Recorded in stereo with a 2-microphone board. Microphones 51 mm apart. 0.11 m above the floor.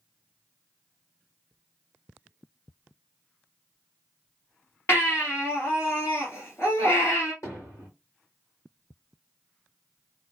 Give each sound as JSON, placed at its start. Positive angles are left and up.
{"t": 4.9, "sound": "a baby crying", "side_deg": 55, "distance_m": 2.0}
{"t": 7.4, "sound": "hammering", "side_deg": 75, "distance_m": 2.5}